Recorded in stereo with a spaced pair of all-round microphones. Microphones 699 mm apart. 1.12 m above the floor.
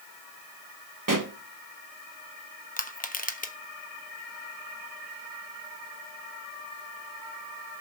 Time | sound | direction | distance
1.1 | a pop | 30° right (ahead or behind) | 1.0 m
2.8 | crushing | 10° left (ahead or behind) | 1.0 m